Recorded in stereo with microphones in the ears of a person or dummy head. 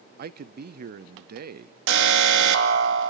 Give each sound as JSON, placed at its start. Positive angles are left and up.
{"t": 0.2, "sound": "a man speaking", "side_deg": -45, "distance_m": 0.7}
{"t": 1.9, "sound": "an alarm", "side_deg": -70, "distance_m": 2.0}